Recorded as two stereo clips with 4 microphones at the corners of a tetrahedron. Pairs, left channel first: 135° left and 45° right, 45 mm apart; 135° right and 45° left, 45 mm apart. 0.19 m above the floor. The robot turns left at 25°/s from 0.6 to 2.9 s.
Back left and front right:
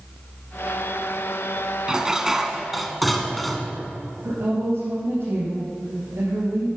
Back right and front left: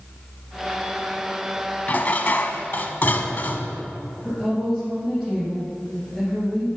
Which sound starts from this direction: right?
Dishes clattering, at 1.9 s.